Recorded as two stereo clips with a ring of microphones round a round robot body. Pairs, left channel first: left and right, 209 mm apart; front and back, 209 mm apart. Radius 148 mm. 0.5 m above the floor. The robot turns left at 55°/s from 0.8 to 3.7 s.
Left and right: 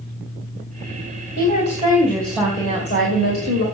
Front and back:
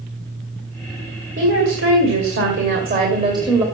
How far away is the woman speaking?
About 2.5 m.